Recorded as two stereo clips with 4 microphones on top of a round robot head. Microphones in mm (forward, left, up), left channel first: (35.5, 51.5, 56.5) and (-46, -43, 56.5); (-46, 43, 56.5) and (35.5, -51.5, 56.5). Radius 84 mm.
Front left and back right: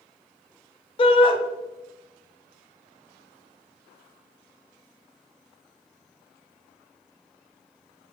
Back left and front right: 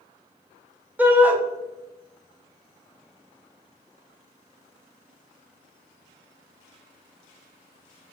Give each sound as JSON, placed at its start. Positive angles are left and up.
{"t": 1.0, "sound": "a shout", "azimuth_deg": 25, "distance_m": 0.7}